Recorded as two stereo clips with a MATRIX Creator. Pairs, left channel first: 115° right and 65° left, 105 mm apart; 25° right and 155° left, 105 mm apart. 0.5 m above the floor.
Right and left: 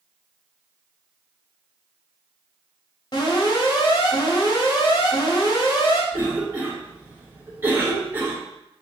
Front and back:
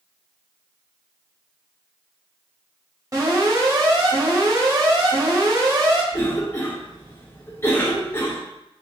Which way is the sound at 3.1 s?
150° right.